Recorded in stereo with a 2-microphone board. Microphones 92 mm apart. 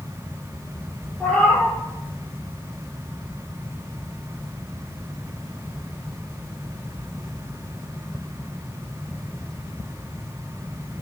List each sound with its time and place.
1.2 s a cat meowing: 10° left (ahead or behind), 1.1 m